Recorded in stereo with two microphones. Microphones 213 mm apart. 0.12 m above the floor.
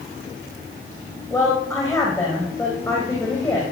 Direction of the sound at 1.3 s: 15° left (ahead or behind).